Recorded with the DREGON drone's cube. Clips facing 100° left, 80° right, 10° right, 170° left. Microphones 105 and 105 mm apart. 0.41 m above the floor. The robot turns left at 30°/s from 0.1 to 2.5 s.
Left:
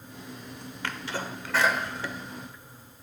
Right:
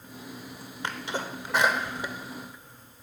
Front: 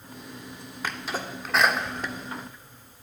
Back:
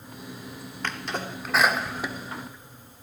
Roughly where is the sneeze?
Right.